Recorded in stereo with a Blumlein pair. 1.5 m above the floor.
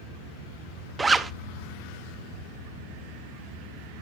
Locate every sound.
1.0 s a zipper: 10° right, 0.6 m